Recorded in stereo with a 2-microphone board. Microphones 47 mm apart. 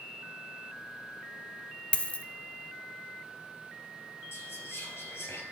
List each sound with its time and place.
1.9 s a dropped coin: 25° left (ahead or behind), 0.5 m
4.3 s whispering: 60° left (ahead or behind), 2.5 m